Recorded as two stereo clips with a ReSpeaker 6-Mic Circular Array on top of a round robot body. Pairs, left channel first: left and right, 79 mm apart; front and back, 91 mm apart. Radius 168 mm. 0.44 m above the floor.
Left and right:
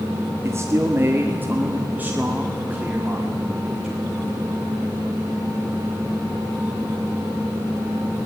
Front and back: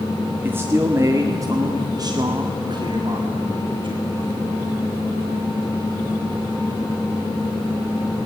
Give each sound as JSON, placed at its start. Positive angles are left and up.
{"t": 0.4, "sound": "a man speaking", "azimuth_deg": -125, "distance_m": 1.8}